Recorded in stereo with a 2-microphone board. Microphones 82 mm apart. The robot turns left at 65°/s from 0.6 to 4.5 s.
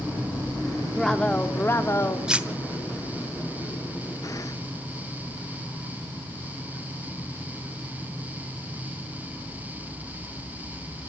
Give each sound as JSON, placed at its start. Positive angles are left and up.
{"t": 0.9, "sound": "a woman speaking", "azimuth_deg": 180, "distance_m": 0.8}
{"t": 2.3, "sound": "cutlery clinking", "side_deg": -10, "distance_m": 0.6}